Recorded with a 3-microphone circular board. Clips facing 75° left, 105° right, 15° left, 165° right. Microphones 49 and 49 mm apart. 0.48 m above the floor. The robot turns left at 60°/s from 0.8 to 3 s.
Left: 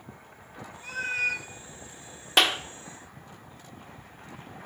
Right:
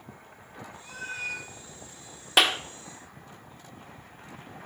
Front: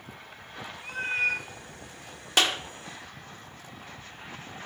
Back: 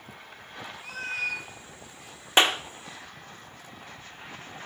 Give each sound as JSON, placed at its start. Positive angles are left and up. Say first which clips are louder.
{"t": 0.8, "sound": "a cat meowing", "louder": "left 7 dB, front 4 dB", "azimuth_deg": 100, "distance_m": 0.9}
{"t": 2.4, "sound": "a clap", "louder": "even, back 3 dB", "azimuth_deg": 175, "distance_m": 0.5}